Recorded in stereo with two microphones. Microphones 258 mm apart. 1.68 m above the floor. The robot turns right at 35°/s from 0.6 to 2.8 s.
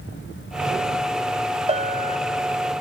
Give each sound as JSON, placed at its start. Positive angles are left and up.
{"t": 1.7, "sound": "a bell", "side_deg": -25, "distance_m": 0.6}